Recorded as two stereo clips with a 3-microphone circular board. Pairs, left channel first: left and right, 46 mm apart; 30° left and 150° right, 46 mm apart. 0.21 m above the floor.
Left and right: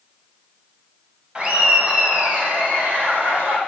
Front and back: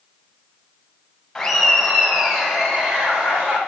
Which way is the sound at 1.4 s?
50° right.